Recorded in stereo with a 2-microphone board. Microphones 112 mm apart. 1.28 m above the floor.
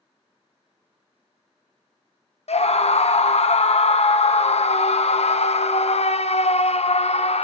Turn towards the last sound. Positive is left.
turn(degrees=70)  # may be behind; listen again after turning